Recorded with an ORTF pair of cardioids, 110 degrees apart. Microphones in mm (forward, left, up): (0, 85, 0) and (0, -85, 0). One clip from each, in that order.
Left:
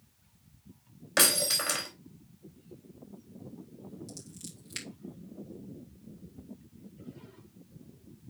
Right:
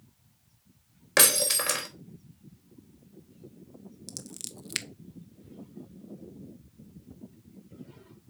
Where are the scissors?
65° right, 0.9 m.